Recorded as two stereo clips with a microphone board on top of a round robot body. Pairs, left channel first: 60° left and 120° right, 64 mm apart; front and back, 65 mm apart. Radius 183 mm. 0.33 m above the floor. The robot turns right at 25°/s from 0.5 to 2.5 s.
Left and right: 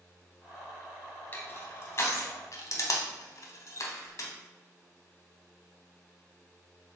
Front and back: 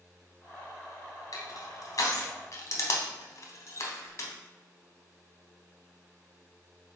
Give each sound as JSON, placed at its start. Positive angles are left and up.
{"t": 1.3, "sound": "crushing", "azimuth_deg": 5, "distance_m": 0.8}